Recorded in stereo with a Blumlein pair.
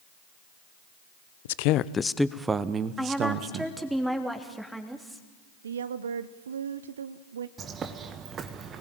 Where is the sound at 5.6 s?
65° right, 0.9 m.